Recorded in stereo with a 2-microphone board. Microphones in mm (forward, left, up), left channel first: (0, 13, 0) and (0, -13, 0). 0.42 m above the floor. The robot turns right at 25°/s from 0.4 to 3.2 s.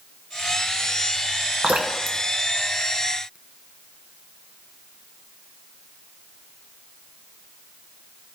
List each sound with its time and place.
1.6 s dripping: 75° right (ahead or behind), 1.0 m; by 3.4 s 60° right (ahead or behind), 1.0 m